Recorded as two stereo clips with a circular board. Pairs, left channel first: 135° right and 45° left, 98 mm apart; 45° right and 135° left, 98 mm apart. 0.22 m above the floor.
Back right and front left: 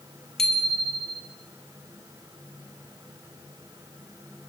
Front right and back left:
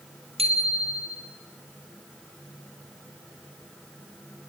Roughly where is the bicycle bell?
Behind left.